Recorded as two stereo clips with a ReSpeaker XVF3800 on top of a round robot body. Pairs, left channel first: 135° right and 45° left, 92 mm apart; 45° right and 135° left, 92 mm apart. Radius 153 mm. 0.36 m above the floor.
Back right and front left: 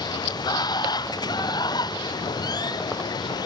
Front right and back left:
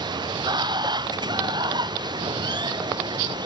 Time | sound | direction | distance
0.0 | running water | straight behind | ?